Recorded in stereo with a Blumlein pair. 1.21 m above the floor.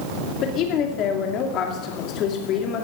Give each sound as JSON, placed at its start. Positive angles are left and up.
{"t": 0.4, "sound": "a woman speaking", "azimuth_deg": 35, "distance_m": 2.5}